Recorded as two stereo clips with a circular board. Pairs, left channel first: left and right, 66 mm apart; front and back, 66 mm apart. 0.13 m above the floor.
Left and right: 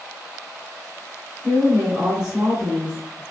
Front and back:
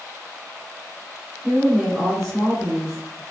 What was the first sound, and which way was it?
A woman speaking, 100° right.